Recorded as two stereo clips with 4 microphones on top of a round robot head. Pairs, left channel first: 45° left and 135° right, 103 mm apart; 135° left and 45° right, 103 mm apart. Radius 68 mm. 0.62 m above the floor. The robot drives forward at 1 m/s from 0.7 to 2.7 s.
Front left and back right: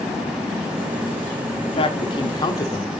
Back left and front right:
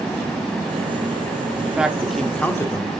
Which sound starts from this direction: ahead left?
A man speaking, at 1.6 s.